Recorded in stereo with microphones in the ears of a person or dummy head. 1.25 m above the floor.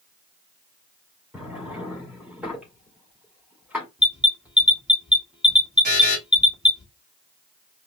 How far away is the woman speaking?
I don't hear a woman speaking.